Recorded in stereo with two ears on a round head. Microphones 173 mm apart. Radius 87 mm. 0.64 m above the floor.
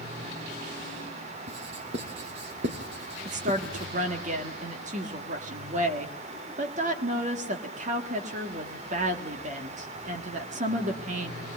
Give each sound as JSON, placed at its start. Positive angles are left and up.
{"t": 1.5, "sound": "writing", "side_deg": -65, "distance_m": 3.5}
{"t": 3.2, "sound": "a woman speaking", "side_deg": -40, "distance_m": 1.5}